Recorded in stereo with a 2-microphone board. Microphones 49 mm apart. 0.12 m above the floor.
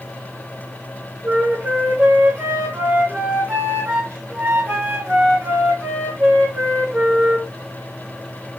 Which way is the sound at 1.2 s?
45° right (ahead or behind).